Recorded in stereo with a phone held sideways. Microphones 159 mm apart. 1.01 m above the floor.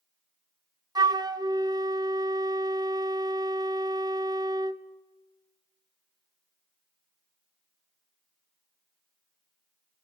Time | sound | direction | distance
0.9 | a flute | 25° right (ahead or behind) | 0.6 m